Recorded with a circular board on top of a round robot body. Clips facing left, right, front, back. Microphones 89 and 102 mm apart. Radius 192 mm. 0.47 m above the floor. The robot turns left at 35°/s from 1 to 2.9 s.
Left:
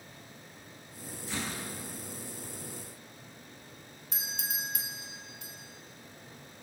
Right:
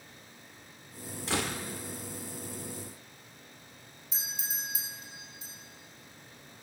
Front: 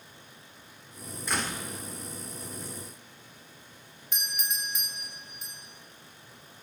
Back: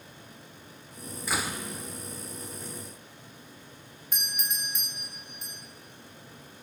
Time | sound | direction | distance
1.3 | a door slam | 95° right | 1.6 m
4.1 | a doorbell | 90° left | 3 m